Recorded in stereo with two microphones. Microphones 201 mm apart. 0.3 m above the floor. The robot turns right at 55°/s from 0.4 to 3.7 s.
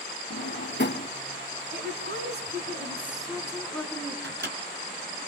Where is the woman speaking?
100° right, 3.5 m; by 4.1 s 10° left, 3.5 m.